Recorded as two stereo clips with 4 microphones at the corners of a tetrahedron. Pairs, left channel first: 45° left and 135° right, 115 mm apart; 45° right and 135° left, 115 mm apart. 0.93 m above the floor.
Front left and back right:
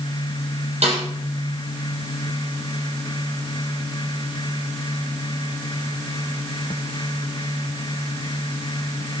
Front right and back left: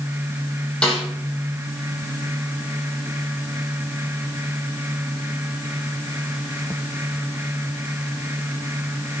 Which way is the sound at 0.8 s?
125° right.